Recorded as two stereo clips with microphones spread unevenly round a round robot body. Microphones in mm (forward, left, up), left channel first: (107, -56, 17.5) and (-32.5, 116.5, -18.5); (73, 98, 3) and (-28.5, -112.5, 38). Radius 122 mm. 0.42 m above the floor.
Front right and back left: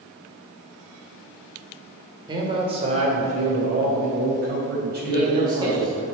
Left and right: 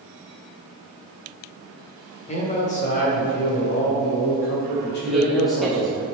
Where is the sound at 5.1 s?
135° left, 1.4 m.